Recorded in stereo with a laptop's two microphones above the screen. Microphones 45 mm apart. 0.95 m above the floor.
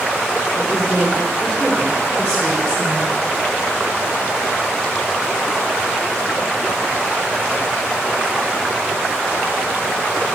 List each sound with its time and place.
0.6 s a woman speaking: 55° left (ahead or behind), 3 m; by 3.1 s 15° left (ahead or behind), 3 m